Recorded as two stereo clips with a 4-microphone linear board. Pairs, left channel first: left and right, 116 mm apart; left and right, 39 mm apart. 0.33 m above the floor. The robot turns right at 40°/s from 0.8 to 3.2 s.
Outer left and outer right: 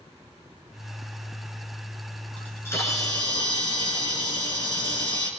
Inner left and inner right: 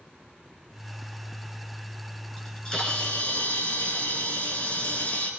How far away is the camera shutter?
About 4 m.